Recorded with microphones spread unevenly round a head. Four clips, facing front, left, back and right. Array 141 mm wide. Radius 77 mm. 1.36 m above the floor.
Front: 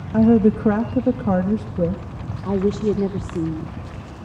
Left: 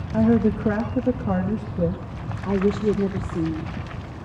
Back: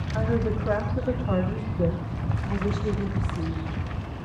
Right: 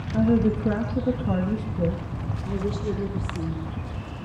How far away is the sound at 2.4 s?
About 1.6 m.